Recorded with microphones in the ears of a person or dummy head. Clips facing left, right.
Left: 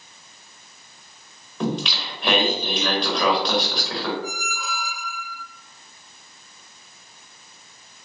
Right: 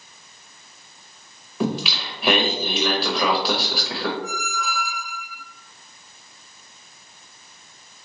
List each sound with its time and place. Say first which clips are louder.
1.6 s singing: right 1 dB; 10° right (ahead or behind), 0.8 m
4.2 s a squeak: right 2 dB; 50° left (ahead or behind), 1.2 m